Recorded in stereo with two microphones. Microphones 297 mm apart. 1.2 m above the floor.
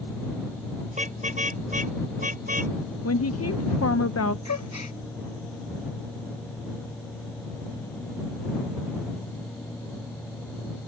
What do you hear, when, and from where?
0.9 s a car horn: 25° right (ahead or behind)
3.0 s a woman speaking: 55° left (ahead or behind)
4.5 s a gasp: 65° left (ahead or behind)